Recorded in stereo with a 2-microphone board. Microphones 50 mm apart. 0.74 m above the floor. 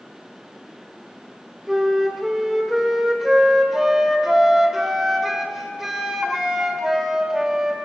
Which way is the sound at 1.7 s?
10° right (ahead or behind).